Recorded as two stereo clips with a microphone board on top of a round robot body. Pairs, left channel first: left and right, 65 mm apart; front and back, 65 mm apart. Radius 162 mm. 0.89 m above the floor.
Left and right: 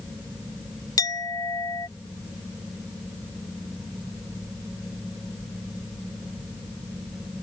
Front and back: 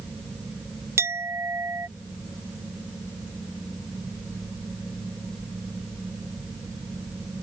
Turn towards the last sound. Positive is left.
turn(degrees=125)